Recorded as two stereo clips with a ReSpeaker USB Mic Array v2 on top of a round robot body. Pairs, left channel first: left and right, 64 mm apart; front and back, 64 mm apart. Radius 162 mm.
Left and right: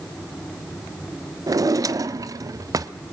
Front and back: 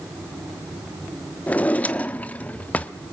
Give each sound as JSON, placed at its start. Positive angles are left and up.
{"t": 1.5, "sound": "a drawer", "azimuth_deg": -65, "distance_m": 0.9}